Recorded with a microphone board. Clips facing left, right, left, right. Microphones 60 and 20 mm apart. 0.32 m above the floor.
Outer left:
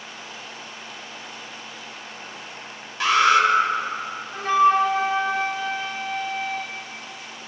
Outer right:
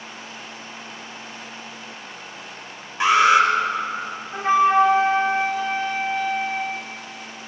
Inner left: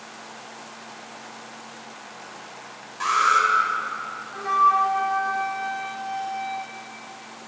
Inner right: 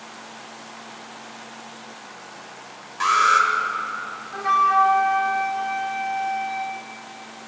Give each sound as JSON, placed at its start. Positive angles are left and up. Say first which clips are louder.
{"t": 3.0, "sound": "an alarm", "louder": "outer right 2 dB, inner right 2 dB", "side_deg": -25, "distance_m": 2.0}
{"t": 4.3, "sound": "a flute", "louder": "outer right 1 dB, inner right 1 dB", "side_deg": -25, "distance_m": 1.3}